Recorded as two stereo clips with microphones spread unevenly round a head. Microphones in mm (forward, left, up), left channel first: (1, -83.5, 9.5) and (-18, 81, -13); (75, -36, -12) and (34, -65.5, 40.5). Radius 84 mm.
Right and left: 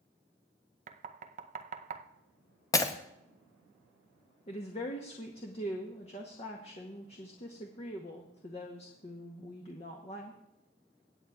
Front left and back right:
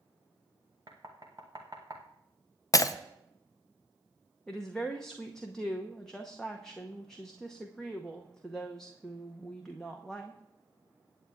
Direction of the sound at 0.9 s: 145° left.